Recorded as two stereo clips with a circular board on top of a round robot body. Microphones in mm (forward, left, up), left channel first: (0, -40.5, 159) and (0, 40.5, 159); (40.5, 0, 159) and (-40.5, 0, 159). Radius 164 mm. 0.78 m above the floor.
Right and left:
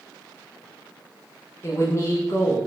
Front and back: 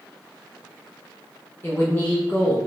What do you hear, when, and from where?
1.6 s a man speaking: 55° right, 0.8 m